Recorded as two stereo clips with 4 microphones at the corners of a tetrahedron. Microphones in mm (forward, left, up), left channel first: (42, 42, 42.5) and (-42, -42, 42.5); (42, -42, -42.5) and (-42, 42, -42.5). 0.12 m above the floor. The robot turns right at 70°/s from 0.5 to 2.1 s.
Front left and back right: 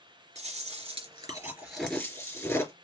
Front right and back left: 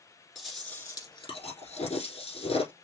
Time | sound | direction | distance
0.3 | chewing | 130° right | 3.5 m